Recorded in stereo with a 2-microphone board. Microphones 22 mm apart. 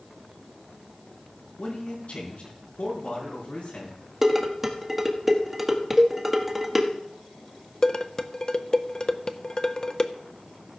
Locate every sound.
1.6 s a man speaking: 65° left (ahead or behind), 4.5 m
4.2 s dishes clattering: 15° right (ahead or behind), 1.4 m
6.0 s a cowbell: 20° right (ahead or behind), 0.9 m
7.8 s dishes clattering: 30° left (ahead or behind), 0.6 m